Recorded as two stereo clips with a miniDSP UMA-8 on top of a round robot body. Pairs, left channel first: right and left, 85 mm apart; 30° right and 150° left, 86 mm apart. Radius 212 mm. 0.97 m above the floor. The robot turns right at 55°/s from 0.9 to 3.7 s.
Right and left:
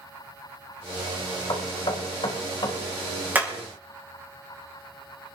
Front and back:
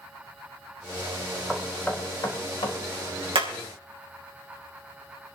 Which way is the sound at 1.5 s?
125° right.